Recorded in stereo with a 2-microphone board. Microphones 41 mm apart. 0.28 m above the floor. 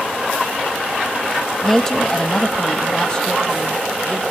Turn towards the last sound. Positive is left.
turn(degrees=25)  # may be behind; listen again after turning